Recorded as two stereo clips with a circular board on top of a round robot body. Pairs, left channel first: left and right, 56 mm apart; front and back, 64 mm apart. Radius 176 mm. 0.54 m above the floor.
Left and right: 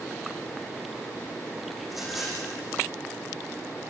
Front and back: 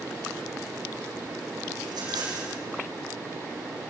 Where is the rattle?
175° right, 6.5 m.